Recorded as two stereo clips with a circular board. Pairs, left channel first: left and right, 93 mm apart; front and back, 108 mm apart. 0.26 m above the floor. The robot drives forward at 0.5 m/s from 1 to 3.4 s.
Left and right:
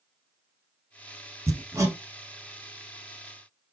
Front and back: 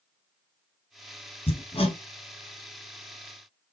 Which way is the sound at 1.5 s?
25° right.